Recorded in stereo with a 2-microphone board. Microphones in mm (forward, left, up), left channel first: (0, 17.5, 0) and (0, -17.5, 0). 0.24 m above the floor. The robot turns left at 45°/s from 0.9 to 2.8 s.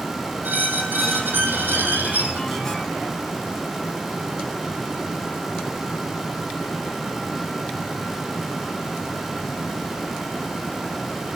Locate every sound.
0.4 s a squeak: 70° right, 1.6 m; by 2.6 s 145° right, 1.6 m